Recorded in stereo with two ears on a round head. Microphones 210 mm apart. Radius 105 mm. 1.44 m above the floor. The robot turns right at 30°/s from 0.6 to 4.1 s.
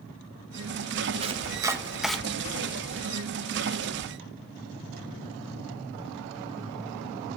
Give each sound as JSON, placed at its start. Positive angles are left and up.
{"t": 1.2, "sound": "chopping", "side_deg": -25, "distance_m": 0.7}